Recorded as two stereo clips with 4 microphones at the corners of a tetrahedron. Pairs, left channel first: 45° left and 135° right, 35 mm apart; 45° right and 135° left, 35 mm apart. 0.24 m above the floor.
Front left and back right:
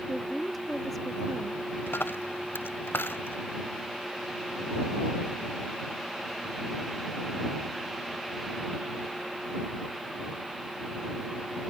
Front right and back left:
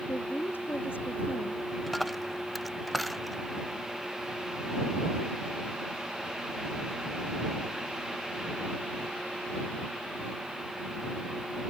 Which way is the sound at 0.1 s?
45° right.